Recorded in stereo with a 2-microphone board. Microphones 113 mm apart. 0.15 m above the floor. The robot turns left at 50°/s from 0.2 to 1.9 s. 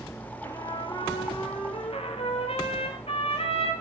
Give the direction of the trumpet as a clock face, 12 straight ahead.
7 o'clock.